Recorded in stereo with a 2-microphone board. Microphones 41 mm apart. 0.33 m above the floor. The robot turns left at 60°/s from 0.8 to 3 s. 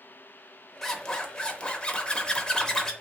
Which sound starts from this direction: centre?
A zipper, at 0.8 s.